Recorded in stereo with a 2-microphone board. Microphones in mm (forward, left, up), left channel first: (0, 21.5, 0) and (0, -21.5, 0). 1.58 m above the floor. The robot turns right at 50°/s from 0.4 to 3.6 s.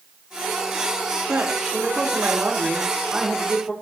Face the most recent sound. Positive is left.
turn(degrees=10)